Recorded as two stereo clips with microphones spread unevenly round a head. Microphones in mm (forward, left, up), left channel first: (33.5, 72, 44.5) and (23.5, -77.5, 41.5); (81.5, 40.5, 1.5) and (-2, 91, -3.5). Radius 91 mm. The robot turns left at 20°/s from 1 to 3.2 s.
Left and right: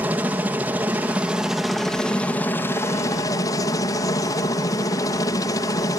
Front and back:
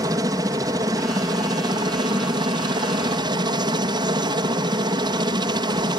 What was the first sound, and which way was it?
A helicopter, 170° right.